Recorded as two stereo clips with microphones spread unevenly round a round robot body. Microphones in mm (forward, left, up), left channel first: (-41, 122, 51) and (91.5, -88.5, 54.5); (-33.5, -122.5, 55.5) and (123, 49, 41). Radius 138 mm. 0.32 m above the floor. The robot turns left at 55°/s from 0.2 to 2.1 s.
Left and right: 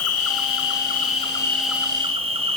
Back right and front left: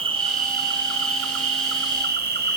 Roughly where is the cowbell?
I don't hear a cowbell.